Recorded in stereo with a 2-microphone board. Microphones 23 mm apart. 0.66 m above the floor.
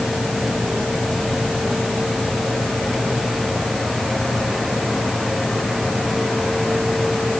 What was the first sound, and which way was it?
Only background noise.